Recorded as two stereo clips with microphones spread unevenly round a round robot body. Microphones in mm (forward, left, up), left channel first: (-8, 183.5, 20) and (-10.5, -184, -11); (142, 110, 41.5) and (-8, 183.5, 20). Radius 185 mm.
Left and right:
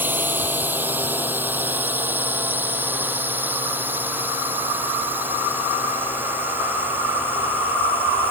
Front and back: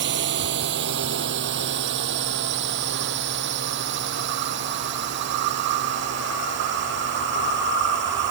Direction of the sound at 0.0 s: 175° right.